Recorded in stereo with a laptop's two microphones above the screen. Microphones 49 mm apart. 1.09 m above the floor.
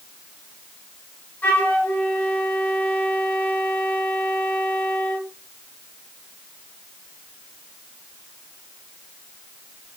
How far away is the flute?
About 1.0 m.